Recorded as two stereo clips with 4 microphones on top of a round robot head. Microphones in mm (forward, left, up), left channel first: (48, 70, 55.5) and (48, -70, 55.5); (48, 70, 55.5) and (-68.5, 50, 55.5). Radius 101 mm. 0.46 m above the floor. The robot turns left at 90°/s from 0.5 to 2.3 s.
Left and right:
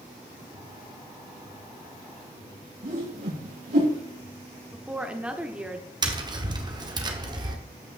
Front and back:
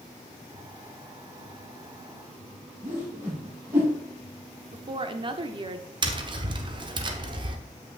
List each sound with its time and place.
2.8 s a whoosh: 95° right, 5 m
4.7 s a woman speaking: 170° right, 1.0 m
6.0 s tapping: 140° right, 1.2 m